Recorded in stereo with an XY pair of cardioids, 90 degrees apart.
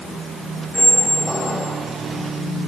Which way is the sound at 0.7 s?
5° right.